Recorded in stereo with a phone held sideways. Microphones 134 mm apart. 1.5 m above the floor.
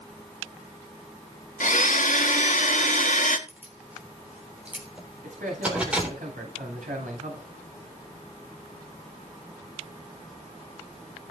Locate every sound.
1.6 s a blender: 75° left (ahead or behind), 1.9 m
3.5 s keys jangling: 10° right (ahead or behind), 3.5 m
5.2 s a man speaking: 80° right, 6.5 m